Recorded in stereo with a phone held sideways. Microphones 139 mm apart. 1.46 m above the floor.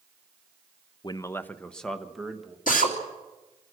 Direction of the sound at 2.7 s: 80° left.